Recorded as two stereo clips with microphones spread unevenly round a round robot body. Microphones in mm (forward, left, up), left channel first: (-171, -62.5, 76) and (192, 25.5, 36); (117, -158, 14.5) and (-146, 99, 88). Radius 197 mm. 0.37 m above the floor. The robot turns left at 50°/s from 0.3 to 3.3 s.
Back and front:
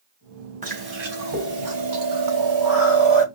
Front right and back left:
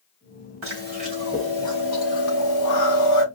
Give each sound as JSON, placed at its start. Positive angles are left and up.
{"t": 0.6, "sound": "chewing", "azimuth_deg": 80, "distance_m": 3.0}